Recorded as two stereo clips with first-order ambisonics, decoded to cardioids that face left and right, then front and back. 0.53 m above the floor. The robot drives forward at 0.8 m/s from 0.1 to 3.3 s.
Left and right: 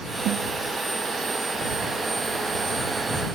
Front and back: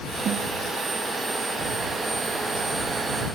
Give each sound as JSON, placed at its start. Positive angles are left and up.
{"t": 0.2, "sound": "a snare drum", "azimuth_deg": -125, "distance_m": 0.6}